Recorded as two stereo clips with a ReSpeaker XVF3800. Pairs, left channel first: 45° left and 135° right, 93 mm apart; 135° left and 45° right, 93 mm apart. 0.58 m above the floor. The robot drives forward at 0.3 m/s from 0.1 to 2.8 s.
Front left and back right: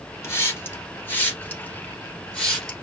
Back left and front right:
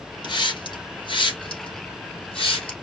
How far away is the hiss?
About 1.4 m.